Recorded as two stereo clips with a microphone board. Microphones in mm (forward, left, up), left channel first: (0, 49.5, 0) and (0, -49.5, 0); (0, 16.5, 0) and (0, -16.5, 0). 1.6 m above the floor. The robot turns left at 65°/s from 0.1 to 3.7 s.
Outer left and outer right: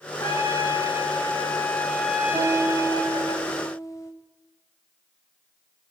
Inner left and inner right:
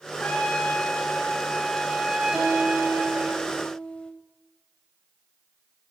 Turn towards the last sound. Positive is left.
turn(degrees=135)